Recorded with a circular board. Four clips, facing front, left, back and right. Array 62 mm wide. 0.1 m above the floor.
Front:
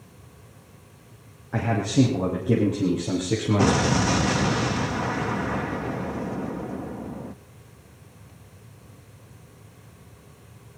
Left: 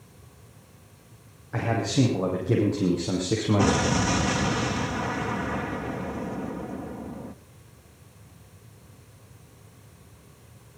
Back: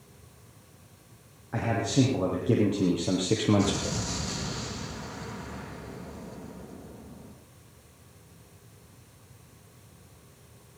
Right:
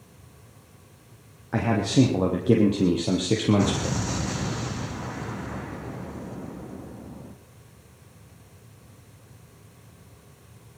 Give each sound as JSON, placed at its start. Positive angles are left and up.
{"t": 1.5, "sound": "a man speaking", "azimuth_deg": -80, "distance_m": 4.5}
{"t": 3.6, "sound": "an explosion", "azimuth_deg": 20, "distance_m": 1.0}